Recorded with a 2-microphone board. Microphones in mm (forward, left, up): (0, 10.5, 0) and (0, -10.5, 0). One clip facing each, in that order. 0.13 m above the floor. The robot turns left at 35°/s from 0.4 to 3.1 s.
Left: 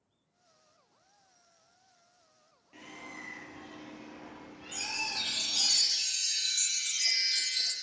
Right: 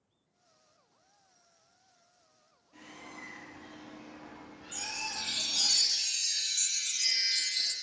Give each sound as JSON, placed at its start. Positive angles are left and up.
{"t": 2.7, "sound": "a bird", "side_deg": 65, "distance_m": 3.5}
{"t": 4.7, "sound": "a chime", "side_deg": 60, "distance_m": 1.4}